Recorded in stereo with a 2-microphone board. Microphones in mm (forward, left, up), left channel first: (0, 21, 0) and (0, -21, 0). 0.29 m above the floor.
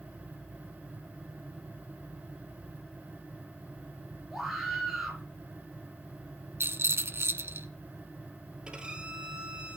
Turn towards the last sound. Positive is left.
turn(degrees=-25)  # may be behind; listen again after turning